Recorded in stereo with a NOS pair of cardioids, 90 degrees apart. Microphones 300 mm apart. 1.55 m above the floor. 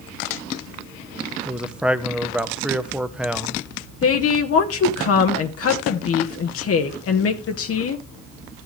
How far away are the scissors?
I don't hear scissors.